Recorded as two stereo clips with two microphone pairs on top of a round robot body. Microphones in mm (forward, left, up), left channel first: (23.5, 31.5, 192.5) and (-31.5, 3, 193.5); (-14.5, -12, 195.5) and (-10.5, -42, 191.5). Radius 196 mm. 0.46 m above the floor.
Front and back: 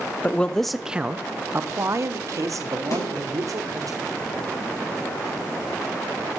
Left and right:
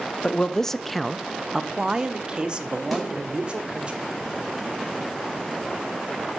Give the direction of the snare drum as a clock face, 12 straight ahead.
12 o'clock.